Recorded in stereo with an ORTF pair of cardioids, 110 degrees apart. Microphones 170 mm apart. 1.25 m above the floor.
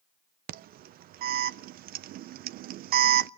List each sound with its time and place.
0.5 s an alarm: 65° right, 0.6 m